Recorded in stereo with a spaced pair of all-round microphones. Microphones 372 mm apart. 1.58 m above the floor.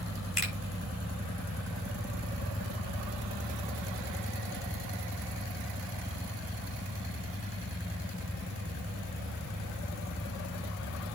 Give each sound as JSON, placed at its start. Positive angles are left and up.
{"t": 0.4, "sound": "a finger snap", "side_deg": 80, "distance_m": 6.5}